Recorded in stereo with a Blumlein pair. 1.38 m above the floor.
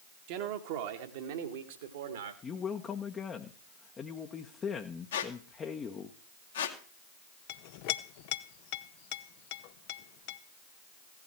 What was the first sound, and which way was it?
A man speaking, 45° right.